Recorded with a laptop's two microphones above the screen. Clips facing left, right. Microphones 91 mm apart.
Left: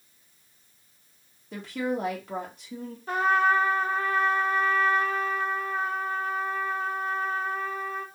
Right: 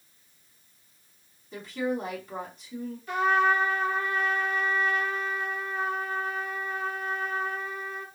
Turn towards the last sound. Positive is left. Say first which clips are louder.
# left 1 dB
turn(degrees=40)  # may be behind; listen again after turning